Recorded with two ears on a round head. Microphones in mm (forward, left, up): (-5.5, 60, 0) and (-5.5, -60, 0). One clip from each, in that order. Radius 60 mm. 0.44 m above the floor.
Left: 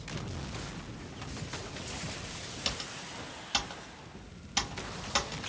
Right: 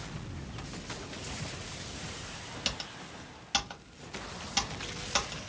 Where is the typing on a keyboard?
10° right (ahead or behind), 1.0 m.